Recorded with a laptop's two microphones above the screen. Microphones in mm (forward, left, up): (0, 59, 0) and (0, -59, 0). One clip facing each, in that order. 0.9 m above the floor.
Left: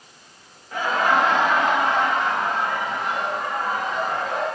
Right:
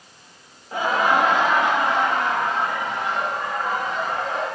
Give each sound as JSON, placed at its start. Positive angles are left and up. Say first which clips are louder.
{"t": 0.7, "sound": "laughter", "louder": "right 1 dB", "side_deg": -25, "distance_m": 0.7}